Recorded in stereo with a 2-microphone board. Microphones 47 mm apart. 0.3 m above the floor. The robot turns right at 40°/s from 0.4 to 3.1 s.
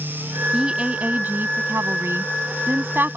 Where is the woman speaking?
160° right; by 3.2 s 55° right.